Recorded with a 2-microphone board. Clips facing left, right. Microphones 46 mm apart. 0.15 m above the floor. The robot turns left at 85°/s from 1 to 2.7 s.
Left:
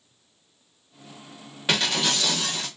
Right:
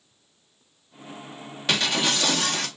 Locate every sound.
1.7 s breaking glass: 15° left, 3.5 m; by 2.7 s 70° right, 3.5 m